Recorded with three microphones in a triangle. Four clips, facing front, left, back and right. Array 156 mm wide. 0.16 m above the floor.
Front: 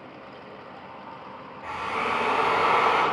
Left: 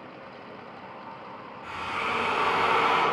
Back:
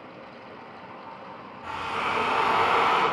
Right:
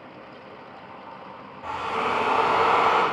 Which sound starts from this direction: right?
A drill, at 1.6 s.